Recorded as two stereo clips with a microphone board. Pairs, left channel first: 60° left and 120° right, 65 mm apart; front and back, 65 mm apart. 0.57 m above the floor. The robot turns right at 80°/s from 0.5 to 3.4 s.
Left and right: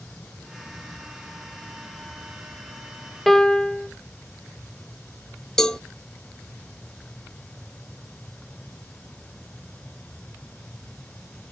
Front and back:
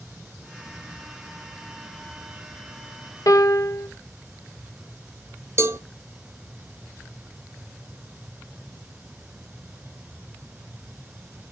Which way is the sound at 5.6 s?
140° left.